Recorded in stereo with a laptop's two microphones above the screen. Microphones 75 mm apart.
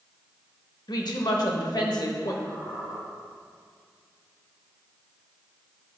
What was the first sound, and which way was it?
A woman speaking, 65° left (ahead or behind).